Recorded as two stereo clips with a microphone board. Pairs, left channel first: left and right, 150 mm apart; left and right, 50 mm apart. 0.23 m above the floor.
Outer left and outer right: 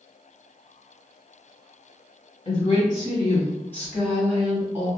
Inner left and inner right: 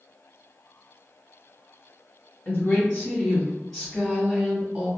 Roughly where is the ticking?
No ticking in this recording.